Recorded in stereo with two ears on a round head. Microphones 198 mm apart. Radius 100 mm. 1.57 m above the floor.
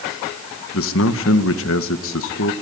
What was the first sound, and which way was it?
A man speaking, 60° left (ahead or behind).